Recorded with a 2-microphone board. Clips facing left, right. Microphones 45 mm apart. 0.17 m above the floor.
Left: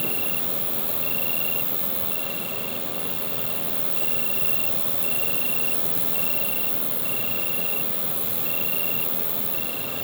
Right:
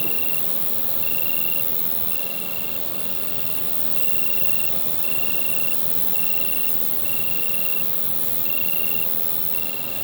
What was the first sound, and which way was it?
An insect, 5° right (ahead or behind).